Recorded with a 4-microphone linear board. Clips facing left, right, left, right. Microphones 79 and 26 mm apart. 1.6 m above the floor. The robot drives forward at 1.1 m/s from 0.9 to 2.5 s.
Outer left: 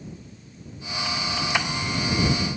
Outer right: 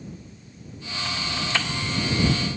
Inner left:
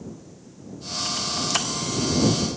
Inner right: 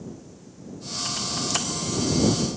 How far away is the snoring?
I don't hear snoring.